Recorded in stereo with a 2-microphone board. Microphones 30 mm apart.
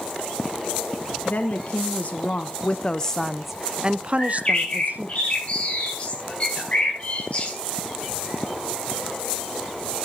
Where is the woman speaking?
65° left (ahead or behind), 1.4 m; by 5.2 s 65° right (ahead or behind), 1.2 m.